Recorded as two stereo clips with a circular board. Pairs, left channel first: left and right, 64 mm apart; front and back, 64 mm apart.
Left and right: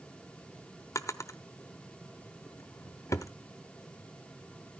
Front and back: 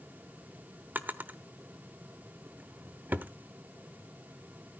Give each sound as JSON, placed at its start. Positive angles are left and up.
{"t": 0.9, "sound": "a drawer", "azimuth_deg": 120, "distance_m": 0.9}